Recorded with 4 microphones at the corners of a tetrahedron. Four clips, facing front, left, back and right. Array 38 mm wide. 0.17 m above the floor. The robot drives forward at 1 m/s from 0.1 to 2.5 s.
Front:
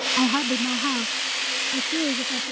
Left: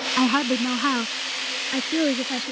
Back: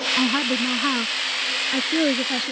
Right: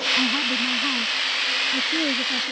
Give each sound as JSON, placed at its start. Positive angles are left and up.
{"t": 0.2, "sound": "a woman speaking", "azimuth_deg": 85}